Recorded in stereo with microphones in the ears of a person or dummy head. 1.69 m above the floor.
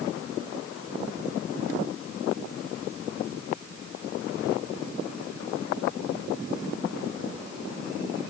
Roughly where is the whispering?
No whispering in this recording.